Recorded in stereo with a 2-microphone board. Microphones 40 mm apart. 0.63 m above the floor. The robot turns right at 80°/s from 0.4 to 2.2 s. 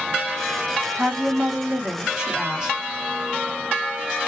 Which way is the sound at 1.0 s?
115° right.